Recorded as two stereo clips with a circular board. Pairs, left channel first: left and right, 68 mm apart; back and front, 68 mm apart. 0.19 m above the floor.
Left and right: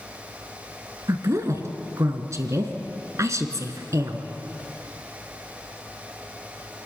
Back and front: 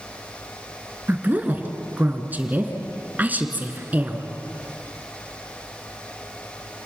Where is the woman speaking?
60° right, 2 m.